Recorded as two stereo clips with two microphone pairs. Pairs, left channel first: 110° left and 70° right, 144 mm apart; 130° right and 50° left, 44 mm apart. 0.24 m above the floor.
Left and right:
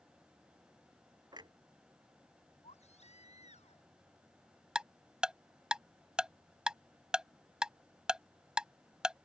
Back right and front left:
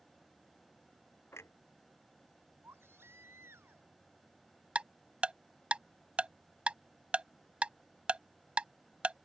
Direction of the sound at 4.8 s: 10° left.